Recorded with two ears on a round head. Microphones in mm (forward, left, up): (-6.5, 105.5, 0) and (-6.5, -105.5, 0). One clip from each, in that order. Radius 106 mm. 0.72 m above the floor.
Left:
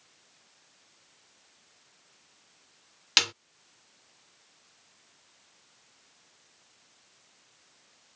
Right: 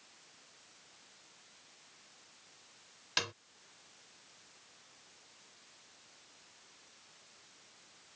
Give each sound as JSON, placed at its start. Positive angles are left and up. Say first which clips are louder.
{"t": 3.2, "sound": "a snare drum", "louder": "left 11 dB", "side_deg": 75}